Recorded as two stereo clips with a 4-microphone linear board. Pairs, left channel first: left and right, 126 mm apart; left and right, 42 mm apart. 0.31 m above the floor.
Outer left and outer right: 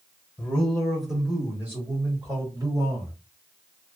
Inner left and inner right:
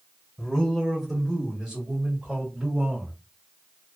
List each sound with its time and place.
0.4 s a man speaking: 10° left (ahead or behind), 1.2 m; by 3.1 s 35° right (ahead or behind), 1.5 m